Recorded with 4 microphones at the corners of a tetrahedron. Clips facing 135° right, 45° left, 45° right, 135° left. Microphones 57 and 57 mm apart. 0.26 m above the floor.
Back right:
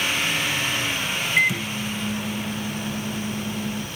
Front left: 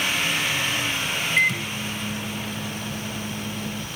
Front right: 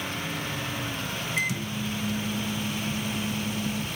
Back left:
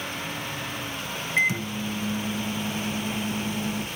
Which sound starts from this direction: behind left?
A microwave, at 1.4 s.